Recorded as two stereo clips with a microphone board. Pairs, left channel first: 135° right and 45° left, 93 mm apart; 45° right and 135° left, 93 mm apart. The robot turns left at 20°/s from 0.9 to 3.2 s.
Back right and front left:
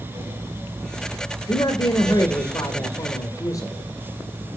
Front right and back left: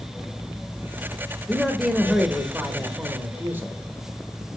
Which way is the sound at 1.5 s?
130° right.